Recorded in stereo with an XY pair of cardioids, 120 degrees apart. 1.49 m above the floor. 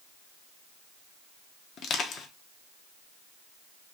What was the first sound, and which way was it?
Crushing, 60° left.